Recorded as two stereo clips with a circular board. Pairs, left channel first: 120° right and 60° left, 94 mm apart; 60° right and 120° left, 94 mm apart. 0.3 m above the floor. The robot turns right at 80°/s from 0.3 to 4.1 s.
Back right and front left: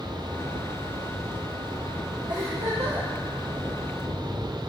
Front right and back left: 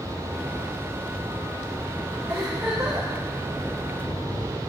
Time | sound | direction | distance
2.3 | a giggle | 15° left | 4.5 m